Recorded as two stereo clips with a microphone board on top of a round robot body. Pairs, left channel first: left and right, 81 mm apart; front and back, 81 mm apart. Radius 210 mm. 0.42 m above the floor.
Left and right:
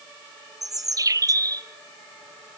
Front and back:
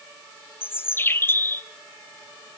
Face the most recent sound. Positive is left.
turn(degrees=-60)